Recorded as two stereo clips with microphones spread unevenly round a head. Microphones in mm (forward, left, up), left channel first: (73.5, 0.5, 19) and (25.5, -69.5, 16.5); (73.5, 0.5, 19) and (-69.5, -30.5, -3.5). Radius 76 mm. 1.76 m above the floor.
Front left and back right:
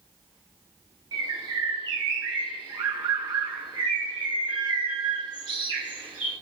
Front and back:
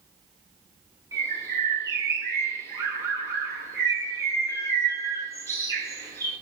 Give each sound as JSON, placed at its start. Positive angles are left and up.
{"t": 1.1, "sound": "a bird", "azimuth_deg": -95, "distance_m": 8.0}